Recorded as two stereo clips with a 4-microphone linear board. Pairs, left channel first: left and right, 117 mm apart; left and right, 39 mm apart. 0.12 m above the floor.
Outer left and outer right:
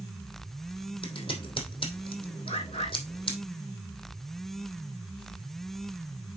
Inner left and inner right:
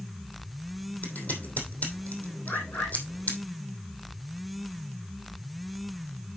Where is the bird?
70° left (ahead or behind), 3.5 m.